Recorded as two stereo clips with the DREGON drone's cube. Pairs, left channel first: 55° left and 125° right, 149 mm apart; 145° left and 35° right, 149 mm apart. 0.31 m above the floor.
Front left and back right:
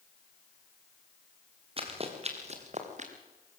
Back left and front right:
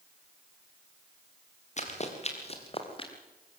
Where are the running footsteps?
175° right, 4 m; by 3.1 s 160° right, 3.5 m.